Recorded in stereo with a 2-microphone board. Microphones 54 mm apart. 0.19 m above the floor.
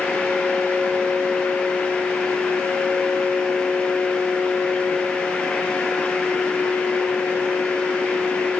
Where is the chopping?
I don't hear chopping.